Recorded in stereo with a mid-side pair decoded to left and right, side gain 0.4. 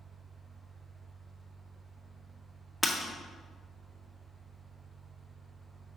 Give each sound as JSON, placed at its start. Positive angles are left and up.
{"t": 0.0, "sound": "a fan", "azimuth_deg": -35, "distance_m": 0.7}
{"t": 2.8, "sound": "breaking glass", "azimuth_deg": 10, "distance_m": 1.7}